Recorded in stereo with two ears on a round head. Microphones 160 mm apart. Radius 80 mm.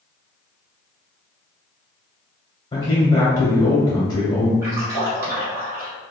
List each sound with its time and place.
2.7 s a man speaking: 25° left (ahead or behind), 0.9 m
4.6 s a splash: 20° right (ahead or behind), 1.5 m